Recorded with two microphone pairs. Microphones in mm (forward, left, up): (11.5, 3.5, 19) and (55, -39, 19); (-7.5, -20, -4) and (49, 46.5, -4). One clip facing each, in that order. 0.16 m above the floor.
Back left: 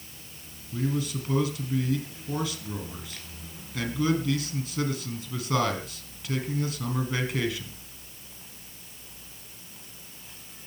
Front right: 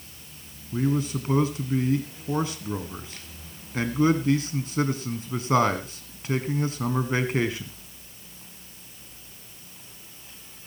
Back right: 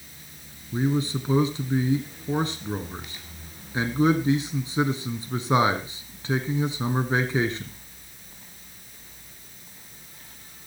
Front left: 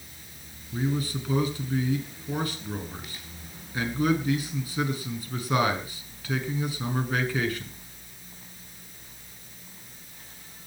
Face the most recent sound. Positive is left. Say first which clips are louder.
# front right 4 dB, back right 4 dB
turn(degrees=-80)